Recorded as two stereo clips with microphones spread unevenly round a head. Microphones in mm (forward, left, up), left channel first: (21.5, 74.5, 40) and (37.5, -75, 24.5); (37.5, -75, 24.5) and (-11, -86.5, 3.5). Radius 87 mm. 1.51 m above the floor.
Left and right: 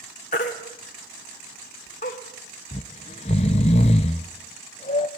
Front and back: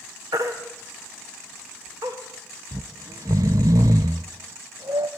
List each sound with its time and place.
0.3 s a baby crying: 135° left, 1.8 m
2.7 s snoring: 140° left, 0.5 m